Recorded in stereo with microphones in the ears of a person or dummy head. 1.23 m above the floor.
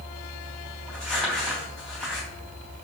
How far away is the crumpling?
About 3 m.